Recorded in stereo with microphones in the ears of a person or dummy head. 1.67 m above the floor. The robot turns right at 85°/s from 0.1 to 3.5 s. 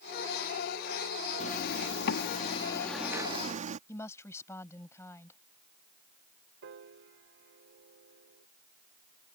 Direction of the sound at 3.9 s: 15° left (ahead or behind).